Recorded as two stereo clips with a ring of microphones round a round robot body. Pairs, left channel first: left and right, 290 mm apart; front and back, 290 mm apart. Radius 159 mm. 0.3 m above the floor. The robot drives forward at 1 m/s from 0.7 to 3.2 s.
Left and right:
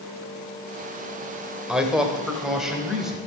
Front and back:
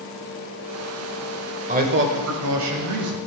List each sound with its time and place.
1.7 s a man speaking: 175° right, 1.2 m; by 3.2 s straight behind, 2 m